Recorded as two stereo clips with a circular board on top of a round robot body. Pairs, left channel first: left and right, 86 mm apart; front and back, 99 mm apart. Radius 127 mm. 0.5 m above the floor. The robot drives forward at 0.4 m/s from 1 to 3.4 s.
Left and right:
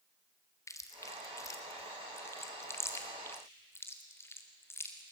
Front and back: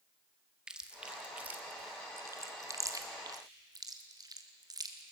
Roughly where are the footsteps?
I don't hear footsteps.